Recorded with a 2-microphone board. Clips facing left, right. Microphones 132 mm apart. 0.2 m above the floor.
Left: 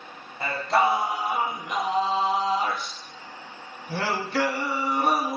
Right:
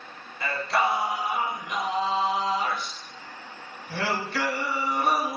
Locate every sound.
0.4 s singing: 40° left (ahead or behind), 1.0 m